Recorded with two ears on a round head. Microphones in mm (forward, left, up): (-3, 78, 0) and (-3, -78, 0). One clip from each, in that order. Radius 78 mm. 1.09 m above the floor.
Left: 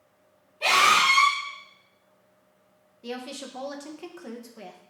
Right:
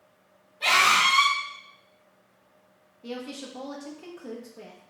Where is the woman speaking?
40° left (ahead or behind), 1.1 m.